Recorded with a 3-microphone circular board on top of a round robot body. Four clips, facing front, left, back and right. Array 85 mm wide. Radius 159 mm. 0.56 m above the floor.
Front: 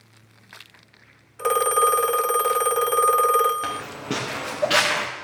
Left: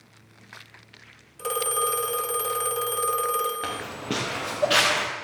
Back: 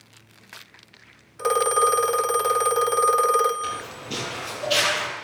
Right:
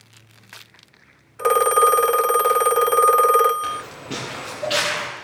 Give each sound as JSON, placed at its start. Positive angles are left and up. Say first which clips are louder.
{"t": 1.4, "sound": "a phone ringing", "louder": "right 12 dB, even", "azimuth_deg": -90, "distance_m": 0.6}
{"t": 3.6, "sound": "footsteps", "louder": "right 2 dB, front 2 dB", "azimuth_deg": 40, "distance_m": 4.5}